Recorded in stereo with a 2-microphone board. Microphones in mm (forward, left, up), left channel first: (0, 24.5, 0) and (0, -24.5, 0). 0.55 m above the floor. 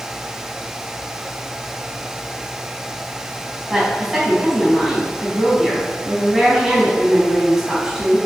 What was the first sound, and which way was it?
A woman speaking, 5° right (ahead or behind).